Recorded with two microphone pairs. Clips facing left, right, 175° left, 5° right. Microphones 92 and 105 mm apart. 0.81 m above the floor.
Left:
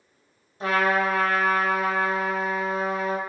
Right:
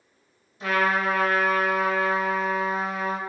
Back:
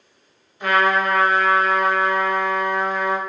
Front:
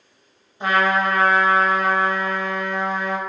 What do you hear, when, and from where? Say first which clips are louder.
0.6 s a trumpet: left 1 dB, back 1 dB; 50° left, 0.7 m